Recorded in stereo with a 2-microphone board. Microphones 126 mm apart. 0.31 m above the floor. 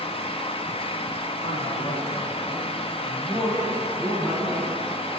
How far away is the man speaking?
About 2.5 m.